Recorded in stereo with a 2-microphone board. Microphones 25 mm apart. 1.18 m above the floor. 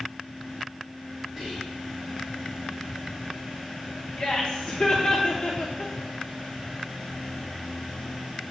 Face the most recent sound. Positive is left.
turn(degrees=40)  # may be behind; listen again after turning